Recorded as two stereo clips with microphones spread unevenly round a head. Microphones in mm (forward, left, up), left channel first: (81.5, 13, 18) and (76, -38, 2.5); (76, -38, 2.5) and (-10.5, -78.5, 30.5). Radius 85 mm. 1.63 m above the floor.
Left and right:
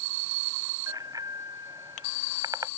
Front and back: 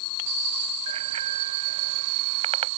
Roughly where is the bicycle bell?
Behind.